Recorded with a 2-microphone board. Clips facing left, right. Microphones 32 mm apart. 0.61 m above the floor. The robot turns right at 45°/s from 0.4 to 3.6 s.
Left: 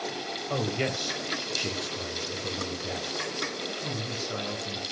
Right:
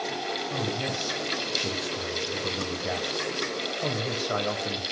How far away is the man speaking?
About 3 m.